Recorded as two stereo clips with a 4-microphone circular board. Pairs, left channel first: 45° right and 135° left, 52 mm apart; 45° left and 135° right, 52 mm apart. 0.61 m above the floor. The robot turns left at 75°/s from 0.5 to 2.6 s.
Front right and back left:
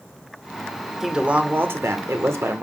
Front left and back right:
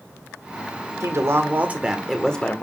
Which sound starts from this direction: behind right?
A woman speaking, at 1.0 s.